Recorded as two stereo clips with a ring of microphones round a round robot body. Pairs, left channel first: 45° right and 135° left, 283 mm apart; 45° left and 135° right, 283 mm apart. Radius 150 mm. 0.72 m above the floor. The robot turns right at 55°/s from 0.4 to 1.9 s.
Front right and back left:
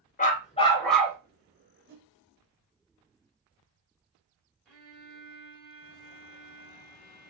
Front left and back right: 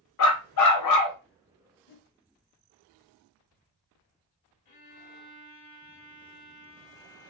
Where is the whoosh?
85° left, 0.6 m; by 2.1 s 90° left, 0.6 m.